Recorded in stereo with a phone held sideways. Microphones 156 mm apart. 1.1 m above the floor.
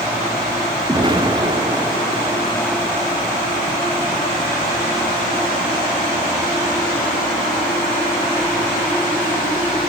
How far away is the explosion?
About 0.9 m.